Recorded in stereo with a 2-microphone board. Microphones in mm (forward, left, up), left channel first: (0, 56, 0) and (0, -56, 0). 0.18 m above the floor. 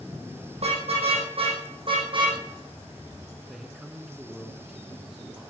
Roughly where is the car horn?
Right.